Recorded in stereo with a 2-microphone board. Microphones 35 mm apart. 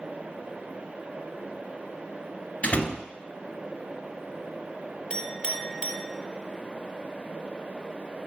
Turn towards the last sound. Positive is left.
turn(degrees=20)  # may be behind; listen again after turning